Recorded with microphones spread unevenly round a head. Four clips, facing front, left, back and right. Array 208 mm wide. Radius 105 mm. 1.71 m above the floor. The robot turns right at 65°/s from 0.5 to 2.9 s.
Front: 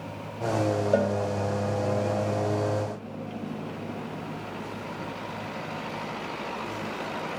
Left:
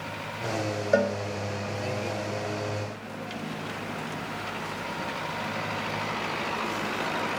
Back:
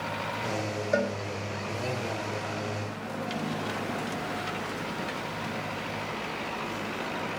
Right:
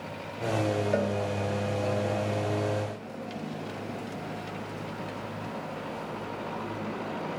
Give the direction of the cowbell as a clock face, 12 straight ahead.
11 o'clock.